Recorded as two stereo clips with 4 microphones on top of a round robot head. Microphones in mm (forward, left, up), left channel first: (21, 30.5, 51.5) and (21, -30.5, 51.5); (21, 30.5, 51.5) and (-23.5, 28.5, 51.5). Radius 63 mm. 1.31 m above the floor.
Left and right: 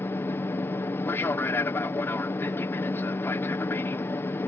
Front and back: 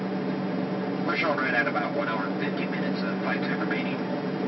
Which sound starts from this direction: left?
An aircraft, at 0.0 s.